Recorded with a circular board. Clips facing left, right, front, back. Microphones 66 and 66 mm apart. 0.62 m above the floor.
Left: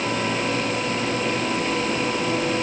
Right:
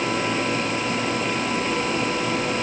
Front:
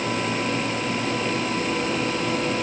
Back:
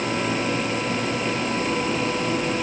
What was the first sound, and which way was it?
Only background noise.